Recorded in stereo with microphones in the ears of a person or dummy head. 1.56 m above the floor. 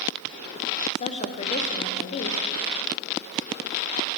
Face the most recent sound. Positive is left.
turn(degrees=35)  # may be behind; listen again after turning